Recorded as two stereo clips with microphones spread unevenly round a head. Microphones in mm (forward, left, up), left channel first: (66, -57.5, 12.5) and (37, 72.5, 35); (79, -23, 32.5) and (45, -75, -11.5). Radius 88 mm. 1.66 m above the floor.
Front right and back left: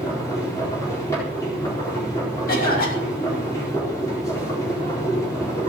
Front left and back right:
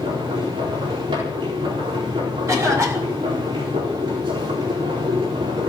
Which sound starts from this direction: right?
A cough, at 2.5 s.